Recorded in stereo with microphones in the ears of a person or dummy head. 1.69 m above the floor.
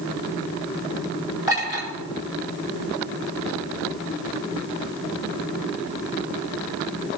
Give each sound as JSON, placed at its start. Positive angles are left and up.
{"t": 1.5, "sound": "a clink", "side_deg": -15, "distance_m": 5.0}